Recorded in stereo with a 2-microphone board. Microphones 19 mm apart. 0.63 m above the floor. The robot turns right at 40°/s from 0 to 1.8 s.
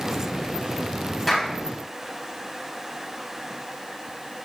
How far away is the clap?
About 3 m.